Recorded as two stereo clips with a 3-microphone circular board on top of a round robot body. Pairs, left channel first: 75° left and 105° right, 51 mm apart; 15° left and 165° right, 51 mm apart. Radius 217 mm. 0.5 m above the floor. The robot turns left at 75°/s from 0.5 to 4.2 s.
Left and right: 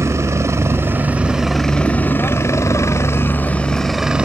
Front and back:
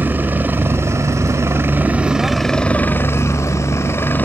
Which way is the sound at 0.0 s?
115° right.